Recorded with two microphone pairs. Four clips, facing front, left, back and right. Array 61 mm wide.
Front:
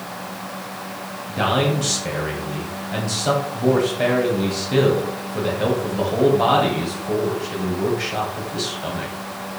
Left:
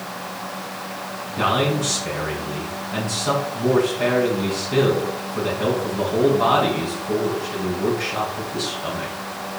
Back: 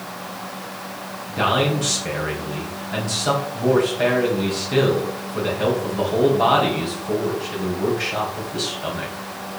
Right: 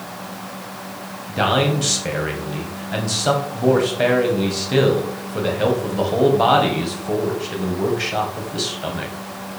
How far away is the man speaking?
About 2.5 m.